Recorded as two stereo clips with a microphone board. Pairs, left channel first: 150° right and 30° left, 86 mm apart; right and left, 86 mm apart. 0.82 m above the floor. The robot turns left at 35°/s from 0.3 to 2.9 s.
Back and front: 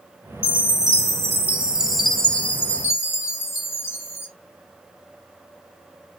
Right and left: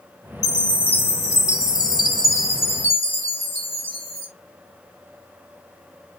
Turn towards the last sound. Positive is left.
turn(degrees=-90)